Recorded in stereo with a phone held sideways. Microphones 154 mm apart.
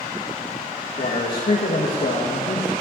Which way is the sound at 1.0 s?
70° left (ahead or behind).